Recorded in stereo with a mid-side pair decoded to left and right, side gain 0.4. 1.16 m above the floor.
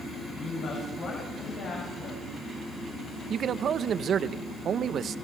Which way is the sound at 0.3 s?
65° left.